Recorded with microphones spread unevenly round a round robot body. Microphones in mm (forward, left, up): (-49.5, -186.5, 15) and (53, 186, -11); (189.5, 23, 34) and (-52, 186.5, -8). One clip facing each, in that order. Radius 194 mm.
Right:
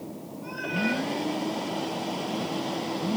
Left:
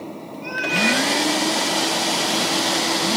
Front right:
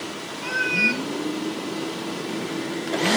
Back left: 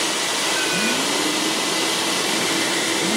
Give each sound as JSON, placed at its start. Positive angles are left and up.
{"t": 0.4, "sound": "a cat meowing", "azimuth_deg": 45, "distance_m": 1.9}